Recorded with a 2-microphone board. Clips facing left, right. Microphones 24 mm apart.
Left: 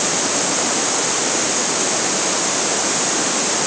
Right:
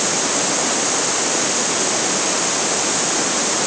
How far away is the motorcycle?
I don't hear a motorcycle.